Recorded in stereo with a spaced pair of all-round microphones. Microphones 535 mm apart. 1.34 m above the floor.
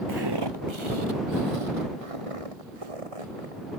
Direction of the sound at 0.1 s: 40° right (ahead or behind).